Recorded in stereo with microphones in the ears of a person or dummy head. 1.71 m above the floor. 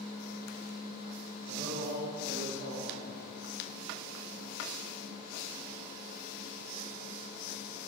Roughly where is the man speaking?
Right.